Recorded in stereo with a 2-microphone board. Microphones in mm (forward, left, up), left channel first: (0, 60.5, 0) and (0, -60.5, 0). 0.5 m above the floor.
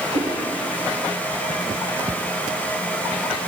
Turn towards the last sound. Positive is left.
turn(degrees=-65)  # may be behind; listen again after turning